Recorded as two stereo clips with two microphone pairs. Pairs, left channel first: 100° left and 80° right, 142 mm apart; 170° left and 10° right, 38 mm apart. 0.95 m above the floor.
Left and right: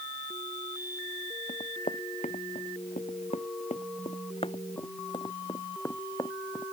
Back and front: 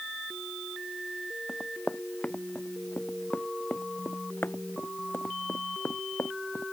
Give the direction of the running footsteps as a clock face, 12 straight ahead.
8 o'clock.